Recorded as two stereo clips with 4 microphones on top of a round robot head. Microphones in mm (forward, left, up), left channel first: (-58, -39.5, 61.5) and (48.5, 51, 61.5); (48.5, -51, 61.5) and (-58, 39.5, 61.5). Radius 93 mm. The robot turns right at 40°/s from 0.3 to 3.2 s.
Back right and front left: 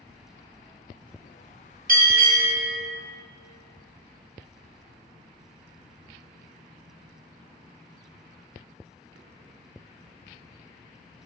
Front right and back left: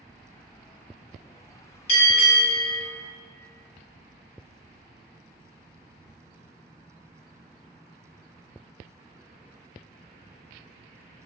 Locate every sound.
1.9 s a bell: 10° left, 1.9 m; by 2.8 s 45° left, 1.9 m